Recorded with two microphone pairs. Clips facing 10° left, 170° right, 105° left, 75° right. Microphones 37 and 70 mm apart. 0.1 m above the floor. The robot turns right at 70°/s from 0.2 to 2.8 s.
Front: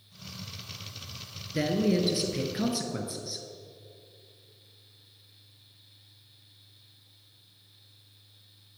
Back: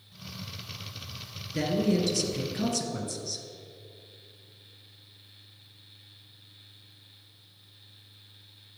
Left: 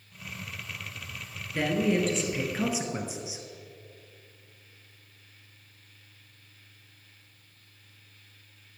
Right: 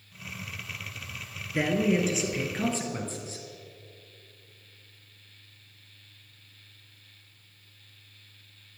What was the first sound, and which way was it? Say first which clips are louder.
A man speaking: even, right 1 dB; 40° right.